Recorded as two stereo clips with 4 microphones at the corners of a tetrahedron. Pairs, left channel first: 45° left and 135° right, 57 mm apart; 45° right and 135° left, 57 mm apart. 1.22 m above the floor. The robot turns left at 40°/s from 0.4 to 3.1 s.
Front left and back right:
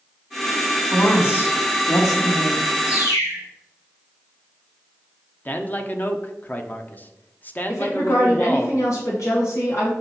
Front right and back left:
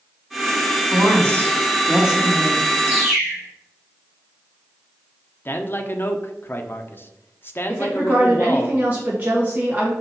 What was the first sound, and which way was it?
A woman speaking, 105° left.